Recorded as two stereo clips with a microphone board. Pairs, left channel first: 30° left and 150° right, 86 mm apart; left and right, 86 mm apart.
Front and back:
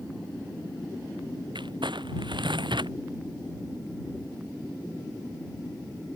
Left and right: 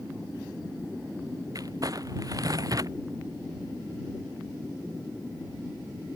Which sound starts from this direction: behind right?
Crumpling, at 1.6 s.